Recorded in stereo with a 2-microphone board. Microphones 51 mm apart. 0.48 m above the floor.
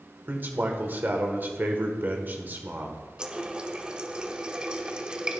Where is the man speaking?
40° right (ahead or behind), 1.4 m.